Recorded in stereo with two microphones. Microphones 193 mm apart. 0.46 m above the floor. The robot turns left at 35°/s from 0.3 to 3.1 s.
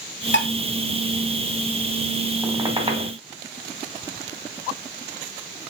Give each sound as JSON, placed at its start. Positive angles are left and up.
{"t": 0.3, "sound": "dishes clattering", "side_deg": 75, "distance_m": 2.0}
{"t": 2.4, "sound": "a squeak", "side_deg": -10, "distance_m": 2.0}